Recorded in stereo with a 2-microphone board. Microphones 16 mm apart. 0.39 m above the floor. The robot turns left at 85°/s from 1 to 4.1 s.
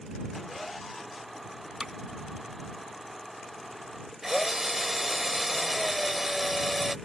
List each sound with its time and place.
1.8 s hammering: 65° right (ahead or behind); by 1.9 s 55° right (ahead or behind)
4.2 s a drill: 25° right (ahead or behind)